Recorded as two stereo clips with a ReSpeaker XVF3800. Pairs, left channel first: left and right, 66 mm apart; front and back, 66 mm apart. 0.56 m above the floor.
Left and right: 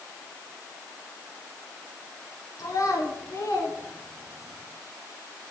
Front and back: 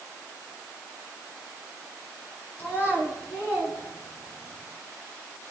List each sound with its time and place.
2.6 s a child speaking: 60° left, 3 m; by 4.6 s 45° left, 5.5 m